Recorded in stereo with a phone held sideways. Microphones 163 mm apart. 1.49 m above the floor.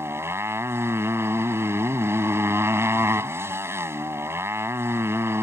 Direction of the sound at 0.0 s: 15° right (ahead or behind).